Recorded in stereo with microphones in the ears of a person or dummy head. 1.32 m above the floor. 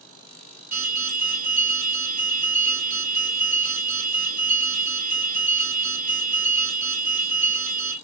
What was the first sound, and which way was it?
An alarm, 40° right (ahead or behind).